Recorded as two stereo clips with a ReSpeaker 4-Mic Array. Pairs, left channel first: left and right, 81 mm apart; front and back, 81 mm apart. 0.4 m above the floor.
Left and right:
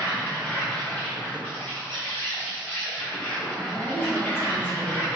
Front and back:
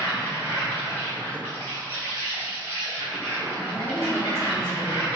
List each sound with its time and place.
0.0 s an insect: 40° left, 1.2 m
3.6 s a woman speaking: 20° left, 1.3 m